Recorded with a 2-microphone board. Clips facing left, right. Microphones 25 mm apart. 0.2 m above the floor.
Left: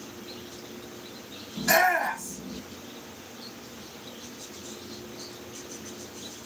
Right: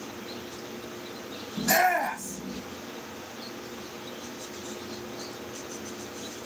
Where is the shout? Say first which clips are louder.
Left 1 dB; 20° left (ahead or behind), 1.9 m; by 2.6 s centre (ahead or behind), 1.7 m.